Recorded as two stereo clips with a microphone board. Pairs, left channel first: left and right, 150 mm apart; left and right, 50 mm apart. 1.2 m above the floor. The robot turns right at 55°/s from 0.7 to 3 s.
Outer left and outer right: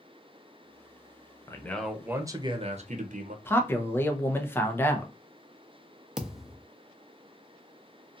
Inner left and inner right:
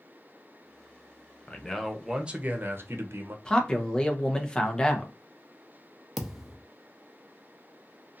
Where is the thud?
5° right (ahead or behind), 0.5 m.